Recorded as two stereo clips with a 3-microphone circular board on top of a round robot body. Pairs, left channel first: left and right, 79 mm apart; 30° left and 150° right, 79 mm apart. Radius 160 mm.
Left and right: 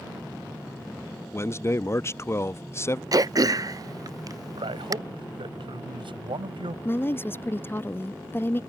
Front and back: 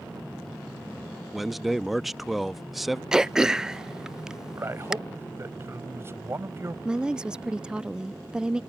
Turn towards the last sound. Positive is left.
turn(degrees=135)